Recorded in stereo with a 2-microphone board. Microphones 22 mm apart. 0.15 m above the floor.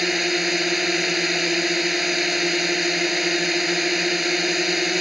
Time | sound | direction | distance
0.0 | a drone | 10° right (ahead or behind) | ?